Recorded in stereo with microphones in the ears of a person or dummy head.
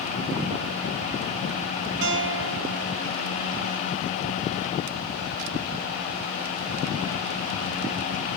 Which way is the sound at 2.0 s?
70° right (ahead or behind).